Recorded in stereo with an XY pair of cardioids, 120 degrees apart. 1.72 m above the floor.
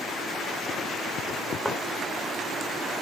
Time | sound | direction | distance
1.6 | a thud | straight ahead | 3.5 m